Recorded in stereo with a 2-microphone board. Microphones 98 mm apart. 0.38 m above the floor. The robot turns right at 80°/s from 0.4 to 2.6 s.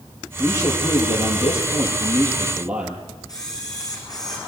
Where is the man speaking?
15° left, 7.5 m; by 3.1 s 170° right, 7.5 m.